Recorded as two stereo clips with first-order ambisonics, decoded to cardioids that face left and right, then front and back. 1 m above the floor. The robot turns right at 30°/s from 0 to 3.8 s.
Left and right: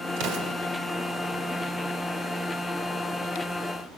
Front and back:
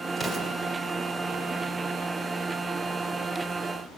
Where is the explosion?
80° right, 2.5 m; by 0.6 s 70° right, 2.5 m.